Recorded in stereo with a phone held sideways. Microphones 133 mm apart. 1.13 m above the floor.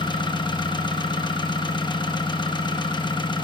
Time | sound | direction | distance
0.0 | an engine running | 35° left (ahead or behind) | 0.8 m